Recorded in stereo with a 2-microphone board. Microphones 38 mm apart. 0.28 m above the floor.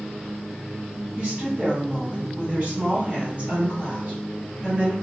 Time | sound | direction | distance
1.2 | a woman speaking | 35° right (ahead or behind) | 1.8 m